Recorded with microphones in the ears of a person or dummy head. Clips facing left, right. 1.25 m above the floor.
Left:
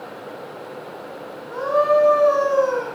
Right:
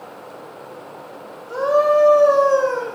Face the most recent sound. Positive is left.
turn(degrees=-70)  # may be behind; listen again after turning